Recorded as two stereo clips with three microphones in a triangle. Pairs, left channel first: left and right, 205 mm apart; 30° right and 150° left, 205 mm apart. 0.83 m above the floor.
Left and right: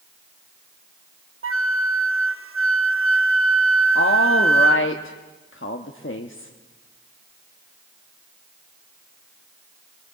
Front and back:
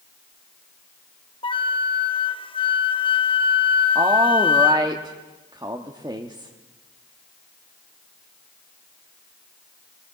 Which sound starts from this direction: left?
A woman speaking, at 4.0 s.